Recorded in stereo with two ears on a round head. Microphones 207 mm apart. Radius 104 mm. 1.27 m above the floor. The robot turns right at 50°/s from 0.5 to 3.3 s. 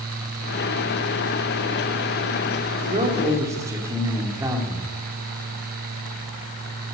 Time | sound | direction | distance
2.8 | a man speaking | 40° right (ahead or behind) | 3 m